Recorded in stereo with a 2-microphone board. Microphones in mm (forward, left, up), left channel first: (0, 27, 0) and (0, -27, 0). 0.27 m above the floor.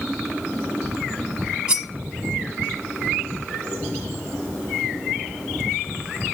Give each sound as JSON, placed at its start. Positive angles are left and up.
{"t": 1.7, "sound": "cutlery clinking", "side_deg": -15, "distance_m": 0.9}